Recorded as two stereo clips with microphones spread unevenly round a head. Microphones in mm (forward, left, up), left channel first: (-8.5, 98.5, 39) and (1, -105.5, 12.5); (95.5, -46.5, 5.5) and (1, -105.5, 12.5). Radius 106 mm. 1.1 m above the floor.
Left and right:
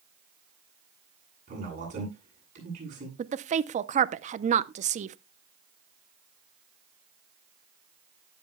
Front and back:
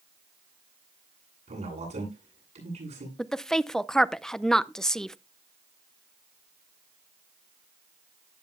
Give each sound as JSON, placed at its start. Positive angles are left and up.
{"t": 1.5, "sound": "a man speaking", "azimuth_deg": -140, "distance_m": 8.5}
{"t": 3.2, "sound": "a woman speaking", "azimuth_deg": -50, "distance_m": 0.6}